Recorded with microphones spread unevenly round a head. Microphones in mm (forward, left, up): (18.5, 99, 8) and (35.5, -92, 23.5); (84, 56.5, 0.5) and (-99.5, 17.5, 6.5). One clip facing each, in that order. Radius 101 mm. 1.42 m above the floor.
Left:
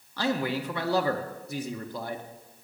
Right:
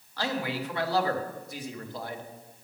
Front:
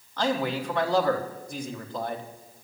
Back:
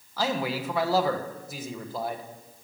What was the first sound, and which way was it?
A man speaking, 105° left.